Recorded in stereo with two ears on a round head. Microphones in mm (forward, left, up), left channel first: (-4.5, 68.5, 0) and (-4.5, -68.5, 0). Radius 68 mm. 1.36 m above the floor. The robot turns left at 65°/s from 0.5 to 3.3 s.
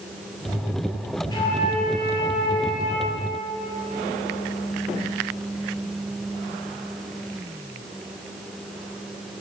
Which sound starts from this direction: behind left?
A flute, at 1.3 s.